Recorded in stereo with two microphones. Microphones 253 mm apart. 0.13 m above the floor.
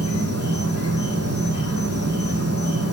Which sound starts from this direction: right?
An insect, at 0.0 s.